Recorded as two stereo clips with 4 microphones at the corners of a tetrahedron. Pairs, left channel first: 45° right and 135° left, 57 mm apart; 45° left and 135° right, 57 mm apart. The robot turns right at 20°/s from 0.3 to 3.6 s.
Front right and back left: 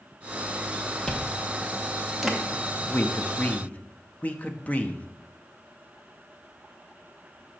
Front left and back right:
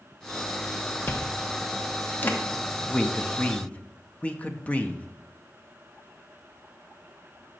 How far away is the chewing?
About 0.9 m.